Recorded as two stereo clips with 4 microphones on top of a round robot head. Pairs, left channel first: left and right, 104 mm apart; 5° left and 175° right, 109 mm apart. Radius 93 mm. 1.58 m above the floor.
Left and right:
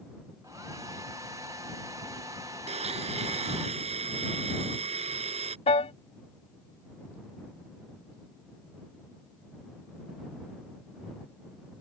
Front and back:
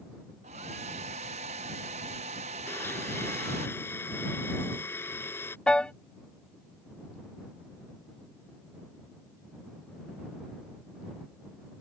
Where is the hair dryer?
155° right.